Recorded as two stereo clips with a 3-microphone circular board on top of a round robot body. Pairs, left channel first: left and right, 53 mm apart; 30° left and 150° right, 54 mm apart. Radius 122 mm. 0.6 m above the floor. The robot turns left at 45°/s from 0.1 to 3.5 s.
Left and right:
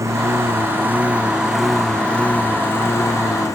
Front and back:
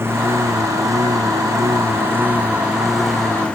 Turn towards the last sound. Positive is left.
turn(degrees=100)